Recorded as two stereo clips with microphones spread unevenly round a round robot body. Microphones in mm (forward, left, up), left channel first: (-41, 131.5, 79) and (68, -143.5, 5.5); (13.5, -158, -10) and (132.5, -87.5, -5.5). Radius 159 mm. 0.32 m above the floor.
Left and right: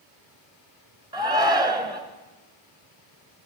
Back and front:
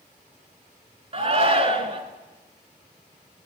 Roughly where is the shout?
Ahead.